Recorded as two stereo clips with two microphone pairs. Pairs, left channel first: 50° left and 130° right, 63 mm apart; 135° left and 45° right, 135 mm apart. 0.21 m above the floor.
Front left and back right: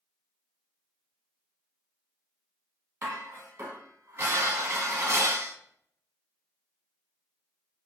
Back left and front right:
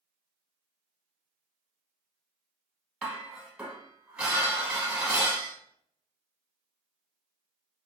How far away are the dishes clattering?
About 1.0 m.